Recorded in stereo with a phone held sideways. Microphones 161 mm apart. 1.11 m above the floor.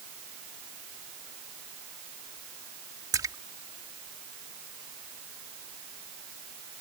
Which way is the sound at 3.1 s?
20° right (ahead or behind).